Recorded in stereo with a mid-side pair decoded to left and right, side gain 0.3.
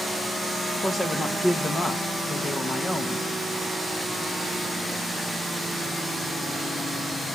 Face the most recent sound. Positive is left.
turn(degrees=40)